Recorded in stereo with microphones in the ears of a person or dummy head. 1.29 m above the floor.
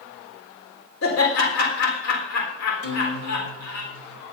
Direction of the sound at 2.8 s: 80° left.